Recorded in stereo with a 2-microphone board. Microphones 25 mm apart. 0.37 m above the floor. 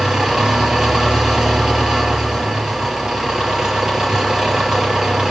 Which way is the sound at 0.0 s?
25° right (ahead or behind).